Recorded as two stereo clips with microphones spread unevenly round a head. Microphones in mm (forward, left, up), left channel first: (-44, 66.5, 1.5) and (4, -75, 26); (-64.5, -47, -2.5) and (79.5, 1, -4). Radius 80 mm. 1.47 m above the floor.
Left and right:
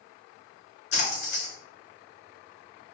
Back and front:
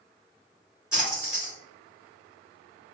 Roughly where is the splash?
Left.